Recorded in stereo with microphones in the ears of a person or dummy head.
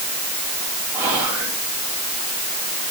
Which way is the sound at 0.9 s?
10° right (ahead or behind).